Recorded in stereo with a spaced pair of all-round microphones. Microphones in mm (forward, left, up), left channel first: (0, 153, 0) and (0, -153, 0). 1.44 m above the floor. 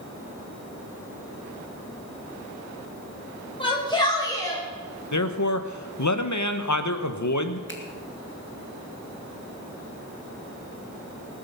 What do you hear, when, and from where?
3.6 s a shout: 15° left (ahead or behind), 6.5 m; by 4.6 s 10° left (ahead or behind), 6.5 m
5.1 s a man speaking: 65° left (ahead or behind), 1.2 m
7.7 s a finger snap: 40° left (ahead or behind), 1.8 m